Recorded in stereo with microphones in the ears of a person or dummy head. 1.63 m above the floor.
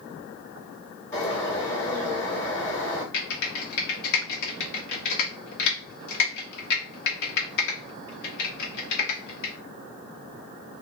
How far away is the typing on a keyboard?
About 1.1 m.